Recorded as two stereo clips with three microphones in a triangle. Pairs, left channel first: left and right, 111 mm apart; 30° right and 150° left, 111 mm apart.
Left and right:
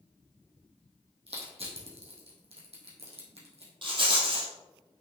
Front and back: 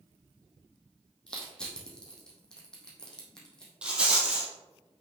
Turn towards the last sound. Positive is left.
turn(degrees=-130)